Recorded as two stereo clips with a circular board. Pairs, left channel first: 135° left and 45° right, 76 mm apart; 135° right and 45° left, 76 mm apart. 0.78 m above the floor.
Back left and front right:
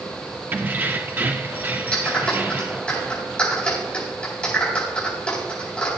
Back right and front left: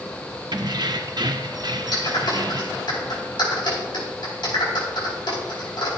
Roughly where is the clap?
Behind right.